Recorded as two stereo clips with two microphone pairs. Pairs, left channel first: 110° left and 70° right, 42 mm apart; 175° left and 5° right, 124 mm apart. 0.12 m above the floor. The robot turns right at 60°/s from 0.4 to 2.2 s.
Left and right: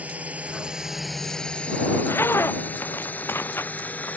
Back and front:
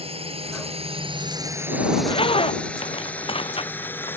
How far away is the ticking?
No ticking in this recording.